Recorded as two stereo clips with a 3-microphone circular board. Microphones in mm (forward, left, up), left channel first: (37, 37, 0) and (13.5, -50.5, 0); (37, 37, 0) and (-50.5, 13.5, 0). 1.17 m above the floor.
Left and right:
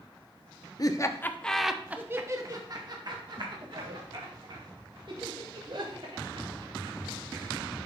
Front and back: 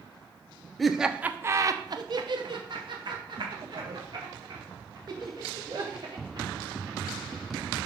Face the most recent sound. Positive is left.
turn(degrees=-125)